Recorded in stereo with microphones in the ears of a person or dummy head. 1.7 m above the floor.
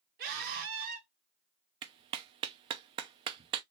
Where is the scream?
60° right (ahead or behind), 2.5 m.